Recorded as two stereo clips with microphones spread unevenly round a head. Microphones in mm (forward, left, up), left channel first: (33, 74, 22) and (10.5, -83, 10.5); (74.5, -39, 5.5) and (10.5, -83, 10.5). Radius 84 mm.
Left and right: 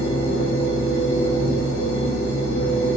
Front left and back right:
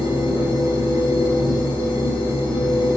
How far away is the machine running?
About 1.1 m.